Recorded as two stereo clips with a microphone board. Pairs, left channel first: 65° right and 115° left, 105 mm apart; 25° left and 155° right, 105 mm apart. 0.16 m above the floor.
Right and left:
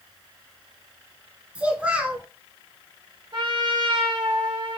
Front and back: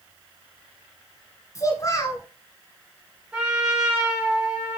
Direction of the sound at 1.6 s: 45° left.